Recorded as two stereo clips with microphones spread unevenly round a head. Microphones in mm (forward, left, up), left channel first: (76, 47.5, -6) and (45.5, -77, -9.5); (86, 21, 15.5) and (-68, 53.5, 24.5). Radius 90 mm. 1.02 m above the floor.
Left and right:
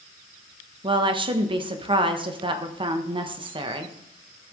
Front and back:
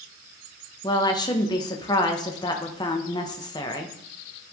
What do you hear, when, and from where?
0.8 s a woman speaking: 70° right, 1.1 m